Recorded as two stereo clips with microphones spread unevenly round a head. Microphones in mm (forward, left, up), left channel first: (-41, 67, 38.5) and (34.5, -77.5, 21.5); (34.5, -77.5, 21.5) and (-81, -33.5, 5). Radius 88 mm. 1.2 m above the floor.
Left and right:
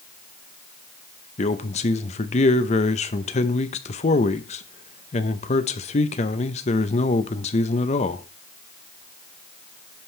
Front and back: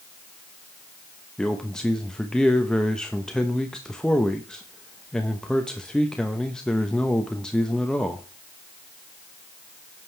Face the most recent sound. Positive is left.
turn(degrees=65)